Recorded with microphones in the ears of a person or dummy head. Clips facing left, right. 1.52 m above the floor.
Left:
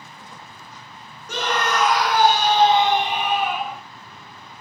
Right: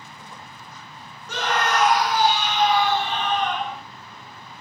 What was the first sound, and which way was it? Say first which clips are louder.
A scream: even; 80° left.